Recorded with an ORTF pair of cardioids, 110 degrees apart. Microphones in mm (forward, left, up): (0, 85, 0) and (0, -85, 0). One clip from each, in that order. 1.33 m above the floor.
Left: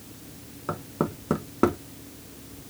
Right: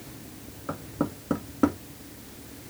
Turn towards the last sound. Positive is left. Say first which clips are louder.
# left 2 dB
turn(degrees=20)